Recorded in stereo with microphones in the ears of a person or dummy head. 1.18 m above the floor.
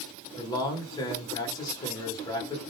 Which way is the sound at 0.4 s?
25° left (ahead or behind).